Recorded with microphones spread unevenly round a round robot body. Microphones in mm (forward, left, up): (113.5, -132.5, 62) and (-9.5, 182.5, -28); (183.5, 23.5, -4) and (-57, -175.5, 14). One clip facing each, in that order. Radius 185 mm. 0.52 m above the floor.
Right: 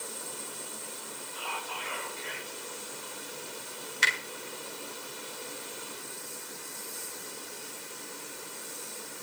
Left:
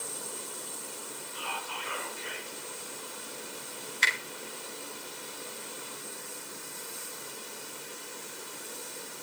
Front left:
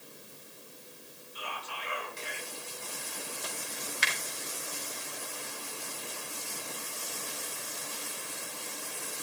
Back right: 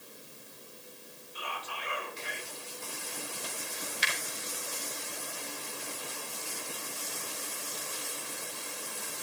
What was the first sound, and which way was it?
Whispering, straight behind.